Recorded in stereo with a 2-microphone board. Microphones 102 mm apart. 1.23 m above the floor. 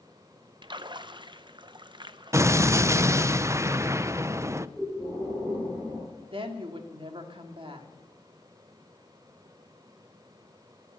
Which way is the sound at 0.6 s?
45° right (ahead or behind).